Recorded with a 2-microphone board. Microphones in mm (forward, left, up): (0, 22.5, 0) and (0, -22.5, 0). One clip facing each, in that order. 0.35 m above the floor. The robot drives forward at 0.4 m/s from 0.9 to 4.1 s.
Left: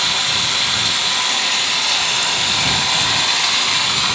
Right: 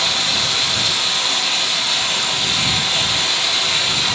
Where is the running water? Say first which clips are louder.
Left 1 dB; 45° left (ahead or behind), 1.1 m; by 4.2 s 50° left (ahead or behind), 1.0 m.